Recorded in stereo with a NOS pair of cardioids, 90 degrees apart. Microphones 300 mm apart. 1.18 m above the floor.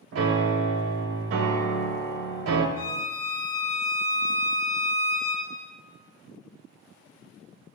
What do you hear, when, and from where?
0.1 s a piano: 50° right, 0.7 m
2.8 s a violin: 55° left, 1.2 m